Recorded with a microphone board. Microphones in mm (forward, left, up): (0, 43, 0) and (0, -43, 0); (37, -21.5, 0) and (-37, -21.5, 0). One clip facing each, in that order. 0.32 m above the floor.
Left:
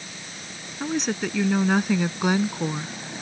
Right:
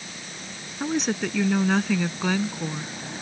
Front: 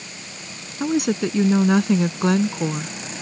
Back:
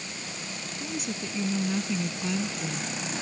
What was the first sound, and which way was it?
A woman speaking, 5° right.